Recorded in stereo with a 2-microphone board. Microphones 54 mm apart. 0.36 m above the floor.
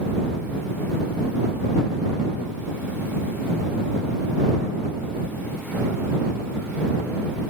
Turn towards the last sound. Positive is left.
No sound to turn to.